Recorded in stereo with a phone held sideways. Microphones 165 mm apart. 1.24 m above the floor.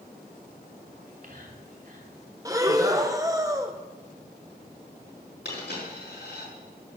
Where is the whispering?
60° right (ahead or behind), 3 m.